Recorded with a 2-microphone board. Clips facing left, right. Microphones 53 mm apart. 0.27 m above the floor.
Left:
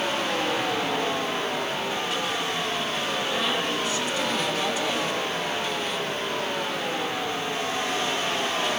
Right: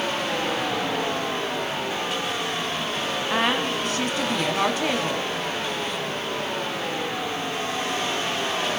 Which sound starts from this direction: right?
A woman speaking, at 3.3 s.